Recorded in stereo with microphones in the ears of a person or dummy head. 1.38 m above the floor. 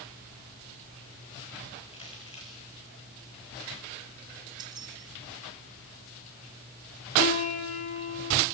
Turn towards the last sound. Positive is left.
turn(degrees=40)  # may be behind; listen again after turning